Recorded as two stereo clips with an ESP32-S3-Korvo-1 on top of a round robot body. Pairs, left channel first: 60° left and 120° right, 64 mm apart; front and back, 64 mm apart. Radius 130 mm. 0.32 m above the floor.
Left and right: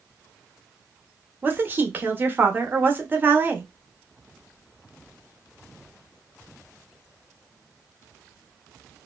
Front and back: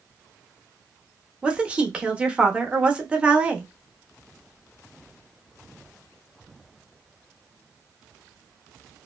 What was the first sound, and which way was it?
A woman speaking, 125° right.